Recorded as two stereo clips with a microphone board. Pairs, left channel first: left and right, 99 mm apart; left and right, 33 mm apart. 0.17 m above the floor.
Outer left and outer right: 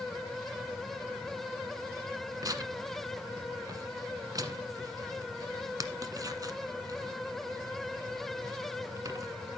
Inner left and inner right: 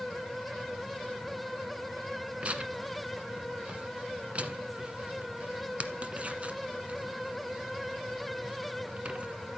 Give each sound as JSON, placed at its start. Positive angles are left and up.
{"t": 2.4, "sound": "tearing paper", "side_deg": -40, "distance_m": 1.2}